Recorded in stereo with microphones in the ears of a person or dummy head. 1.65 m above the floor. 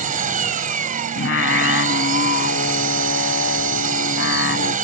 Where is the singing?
60° left (ahead or behind).